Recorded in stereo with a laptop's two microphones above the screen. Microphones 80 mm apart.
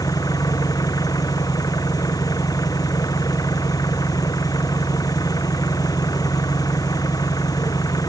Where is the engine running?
45° left (ahead or behind).